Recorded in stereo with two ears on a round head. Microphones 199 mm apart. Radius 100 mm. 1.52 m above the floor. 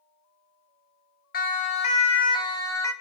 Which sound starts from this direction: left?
A siren, at 1.3 s.